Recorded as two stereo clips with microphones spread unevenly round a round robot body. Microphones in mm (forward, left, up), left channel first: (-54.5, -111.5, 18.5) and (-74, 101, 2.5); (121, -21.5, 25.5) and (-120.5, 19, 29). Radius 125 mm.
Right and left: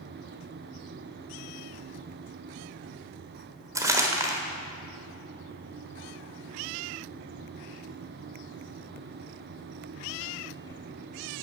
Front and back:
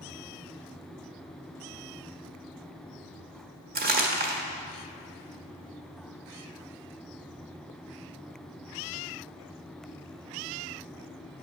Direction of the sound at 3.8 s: 155° left.